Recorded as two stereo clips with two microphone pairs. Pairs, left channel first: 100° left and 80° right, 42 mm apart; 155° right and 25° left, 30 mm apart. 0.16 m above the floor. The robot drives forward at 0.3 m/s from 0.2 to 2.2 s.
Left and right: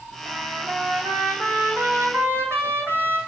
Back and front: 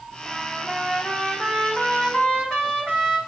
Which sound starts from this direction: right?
A trumpet, at 0.2 s.